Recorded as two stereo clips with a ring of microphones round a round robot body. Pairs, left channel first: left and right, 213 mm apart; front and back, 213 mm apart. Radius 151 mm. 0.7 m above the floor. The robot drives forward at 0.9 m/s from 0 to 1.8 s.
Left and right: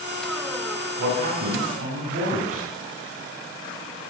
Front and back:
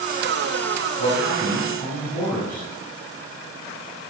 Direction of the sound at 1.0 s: 75° right.